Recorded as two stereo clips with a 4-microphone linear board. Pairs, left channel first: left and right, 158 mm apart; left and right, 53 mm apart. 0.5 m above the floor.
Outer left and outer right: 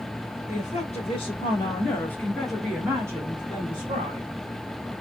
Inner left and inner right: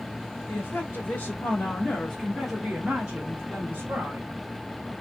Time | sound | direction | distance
0.5 | a woman speaking | 45° left (ahead or behind) | 1.7 m